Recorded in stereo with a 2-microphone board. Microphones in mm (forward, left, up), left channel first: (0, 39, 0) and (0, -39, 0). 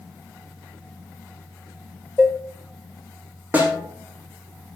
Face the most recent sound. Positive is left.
turn(degrees=-20)  # may be behind; listen again after turning